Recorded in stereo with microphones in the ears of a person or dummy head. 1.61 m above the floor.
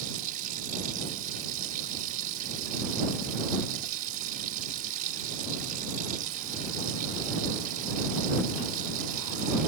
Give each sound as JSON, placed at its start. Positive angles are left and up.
{"t": 0.0, "sound": "running water", "side_deg": -40}